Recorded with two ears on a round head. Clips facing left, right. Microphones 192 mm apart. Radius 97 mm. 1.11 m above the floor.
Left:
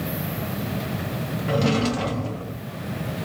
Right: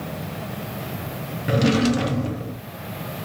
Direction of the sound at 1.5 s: 20° right (ahead or behind).